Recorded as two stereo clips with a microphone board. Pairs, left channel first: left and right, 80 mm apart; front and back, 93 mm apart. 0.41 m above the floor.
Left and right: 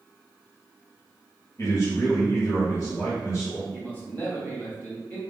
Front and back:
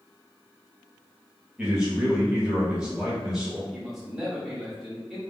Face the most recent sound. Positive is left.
turn(degrees=100)